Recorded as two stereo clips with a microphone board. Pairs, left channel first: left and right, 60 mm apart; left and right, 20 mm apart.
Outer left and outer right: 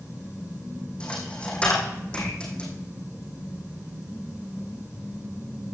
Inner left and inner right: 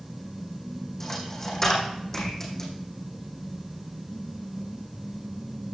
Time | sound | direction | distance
1.0 | a dropped coin | 20° left (ahead or behind) | 3 m